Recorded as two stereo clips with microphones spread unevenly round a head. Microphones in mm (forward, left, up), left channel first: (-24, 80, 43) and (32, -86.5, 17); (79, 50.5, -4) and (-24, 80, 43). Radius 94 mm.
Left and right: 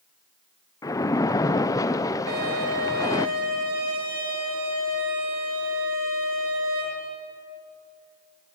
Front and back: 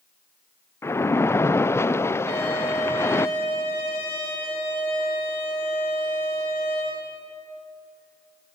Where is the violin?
80° right, 8.5 m.